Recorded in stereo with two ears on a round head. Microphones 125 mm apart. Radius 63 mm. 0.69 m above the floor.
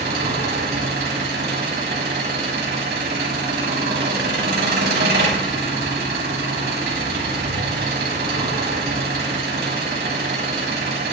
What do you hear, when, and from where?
0.0 s an engine running: 75° right (ahead or behind), 4.5 m